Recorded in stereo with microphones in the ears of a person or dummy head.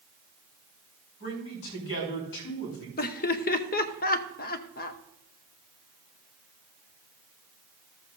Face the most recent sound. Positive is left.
turn(degrees=45)  # may be behind; listen again after turning